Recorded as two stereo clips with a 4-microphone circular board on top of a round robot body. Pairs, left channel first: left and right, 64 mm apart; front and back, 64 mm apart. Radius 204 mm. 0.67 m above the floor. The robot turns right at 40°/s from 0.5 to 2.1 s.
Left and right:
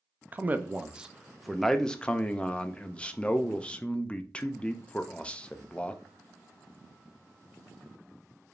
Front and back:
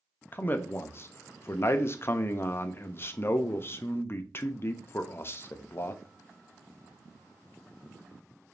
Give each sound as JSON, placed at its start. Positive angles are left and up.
{"t": 0.3, "sound": "a man speaking", "azimuth_deg": -40, "distance_m": 0.5}